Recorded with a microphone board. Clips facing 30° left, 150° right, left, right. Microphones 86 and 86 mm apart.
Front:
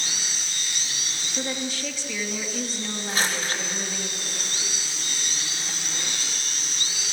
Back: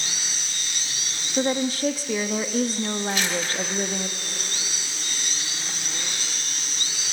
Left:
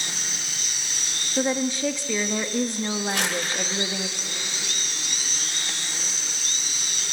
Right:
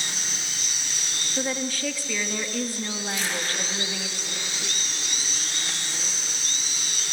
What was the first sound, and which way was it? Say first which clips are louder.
A woman speaking: back 8 dB, left 5 dB; 160° left.